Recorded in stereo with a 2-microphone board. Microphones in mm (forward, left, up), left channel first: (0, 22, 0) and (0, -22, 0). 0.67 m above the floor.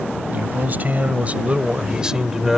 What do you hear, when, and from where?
0.3 s a man speaking: 45° right (ahead or behind); by 2.6 s 5° right (ahead or behind)